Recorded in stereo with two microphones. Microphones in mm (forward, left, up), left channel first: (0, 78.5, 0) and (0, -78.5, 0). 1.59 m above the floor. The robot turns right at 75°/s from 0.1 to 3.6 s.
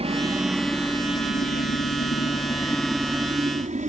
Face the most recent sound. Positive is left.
turn(degrees=-50)  # may be behind; listen again after turning